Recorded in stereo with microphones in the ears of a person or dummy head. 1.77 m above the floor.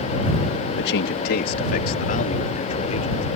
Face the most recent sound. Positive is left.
turn(degrees=40)  # may be behind; listen again after turning